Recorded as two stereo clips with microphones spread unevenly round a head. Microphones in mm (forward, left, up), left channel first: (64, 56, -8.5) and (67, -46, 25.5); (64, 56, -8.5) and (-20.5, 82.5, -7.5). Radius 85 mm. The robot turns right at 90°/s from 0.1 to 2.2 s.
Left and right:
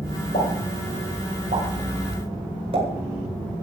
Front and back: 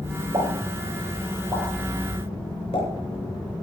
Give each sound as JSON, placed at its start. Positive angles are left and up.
{"t": 0.3, "sound": "a pop", "azimuth_deg": 135, "distance_m": 8.5}